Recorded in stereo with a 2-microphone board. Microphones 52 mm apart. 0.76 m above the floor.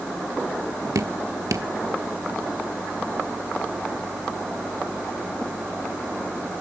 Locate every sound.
0.9 s dripping: 80° right, 1.0 m